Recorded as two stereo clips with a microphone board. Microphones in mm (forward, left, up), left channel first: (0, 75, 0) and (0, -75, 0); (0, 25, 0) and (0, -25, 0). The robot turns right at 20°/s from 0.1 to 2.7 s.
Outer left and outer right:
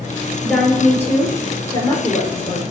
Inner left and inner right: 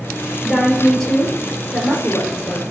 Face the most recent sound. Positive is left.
turn(degrees=45)